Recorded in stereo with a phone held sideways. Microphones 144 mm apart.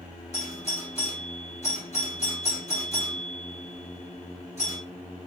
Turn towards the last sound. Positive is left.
turn(degrees=50)  # may be behind; listen again after turning